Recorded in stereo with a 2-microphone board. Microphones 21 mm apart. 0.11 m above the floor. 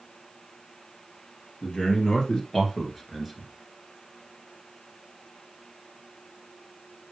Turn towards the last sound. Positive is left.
turn(degrees=-5)  # may be behind; listen again after turning